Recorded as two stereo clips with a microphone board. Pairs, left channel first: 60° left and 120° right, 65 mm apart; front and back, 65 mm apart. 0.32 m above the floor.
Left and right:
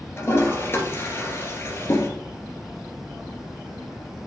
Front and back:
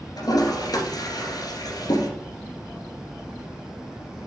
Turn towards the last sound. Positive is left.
turn(degrees=5)